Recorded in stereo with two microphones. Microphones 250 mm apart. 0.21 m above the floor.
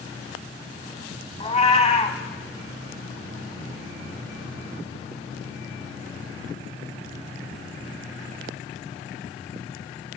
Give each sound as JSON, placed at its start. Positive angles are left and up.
{"t": 1.4, "sound": "a cat meowing", "side_deg": 25, "distance_m": 0.7}